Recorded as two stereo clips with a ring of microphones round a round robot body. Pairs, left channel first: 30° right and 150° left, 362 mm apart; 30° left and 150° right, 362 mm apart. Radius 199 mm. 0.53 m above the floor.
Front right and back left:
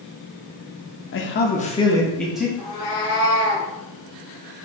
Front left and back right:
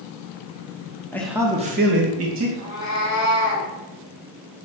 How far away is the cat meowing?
About 0.8 m.